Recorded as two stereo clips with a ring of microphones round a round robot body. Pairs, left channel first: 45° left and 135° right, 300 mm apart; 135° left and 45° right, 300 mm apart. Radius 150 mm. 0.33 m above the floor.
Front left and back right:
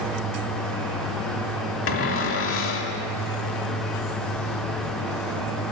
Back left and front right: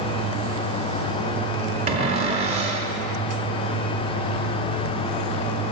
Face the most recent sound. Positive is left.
turn(degrees=20)